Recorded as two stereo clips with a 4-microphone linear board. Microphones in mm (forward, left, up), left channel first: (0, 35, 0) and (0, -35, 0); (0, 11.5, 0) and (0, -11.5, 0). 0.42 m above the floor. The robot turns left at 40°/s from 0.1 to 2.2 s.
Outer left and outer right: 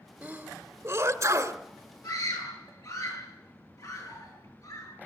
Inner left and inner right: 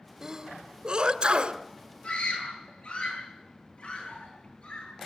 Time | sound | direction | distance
0.2 | a sneeze | 20° right (ahead or behind) | 1.8 m
2.0 | a scream | 65° left (ahead or behind) | 8.5 m